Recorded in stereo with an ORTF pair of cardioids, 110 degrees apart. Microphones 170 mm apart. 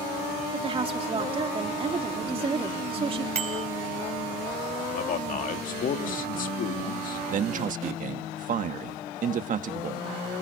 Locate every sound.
0.5 s a woman speaking: 35° right, 2.5 m
3.4 s a bicycle bell: 40° right, 4 m
4.9 s a man speaking: 55° left, 2 m
7.3 s a man speaking: 50° right, 1.5 m